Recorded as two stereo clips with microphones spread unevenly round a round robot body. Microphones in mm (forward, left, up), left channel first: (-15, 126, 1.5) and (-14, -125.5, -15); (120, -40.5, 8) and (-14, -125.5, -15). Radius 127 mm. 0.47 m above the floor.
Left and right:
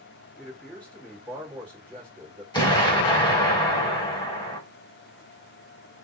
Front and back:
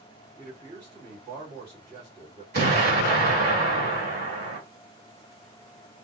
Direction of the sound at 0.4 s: 175° left.